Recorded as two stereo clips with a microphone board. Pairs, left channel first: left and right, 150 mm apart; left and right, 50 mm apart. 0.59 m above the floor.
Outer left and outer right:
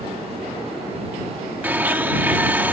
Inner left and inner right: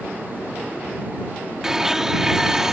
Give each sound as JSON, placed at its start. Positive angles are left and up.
{"t": 1.6, "sound": "a blender", "side_deg": -10}